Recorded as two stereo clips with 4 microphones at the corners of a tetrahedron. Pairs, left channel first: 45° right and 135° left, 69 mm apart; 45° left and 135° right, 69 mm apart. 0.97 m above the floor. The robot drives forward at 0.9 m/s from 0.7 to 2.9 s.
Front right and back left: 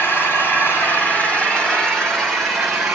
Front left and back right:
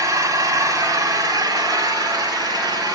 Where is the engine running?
100° right, 2.5 m; by 3.0 s 135° right, 3.5 m.